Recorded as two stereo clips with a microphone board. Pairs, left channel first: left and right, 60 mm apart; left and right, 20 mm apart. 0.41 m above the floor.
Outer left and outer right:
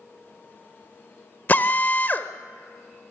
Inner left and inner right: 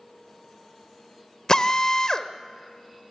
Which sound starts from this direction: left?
A drill, at 1.5 s.